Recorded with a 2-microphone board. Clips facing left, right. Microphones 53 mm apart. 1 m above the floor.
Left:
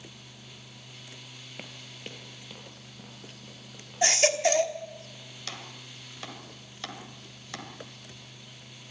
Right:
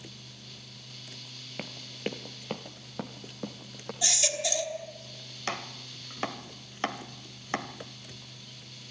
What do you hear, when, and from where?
1.6 s running footsteps: 15° right (ahead or behind), 1.0 m; by 3.9 s 70° right (ahead or behind), 3 m
4.0 s a baby crying: 45° left (ahead or behind), 1.2 m
5.5 s chopping: 40° right (ahead or behind), 1.5 m